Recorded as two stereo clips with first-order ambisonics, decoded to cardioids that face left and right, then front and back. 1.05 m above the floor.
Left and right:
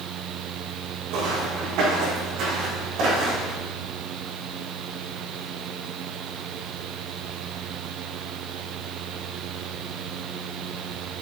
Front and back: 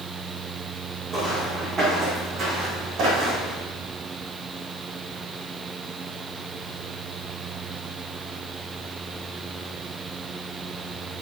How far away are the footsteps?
About 4 m.